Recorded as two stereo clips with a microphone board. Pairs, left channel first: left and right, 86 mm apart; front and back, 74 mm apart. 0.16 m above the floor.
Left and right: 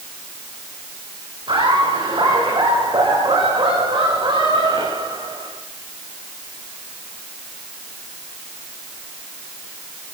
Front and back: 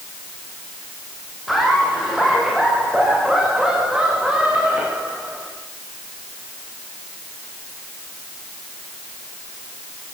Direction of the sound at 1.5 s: 90° right.